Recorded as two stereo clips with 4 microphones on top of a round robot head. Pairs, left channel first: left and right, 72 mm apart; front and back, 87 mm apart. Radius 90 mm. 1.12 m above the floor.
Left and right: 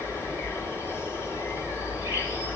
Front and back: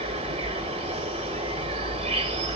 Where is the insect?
165° right, 1.6 m.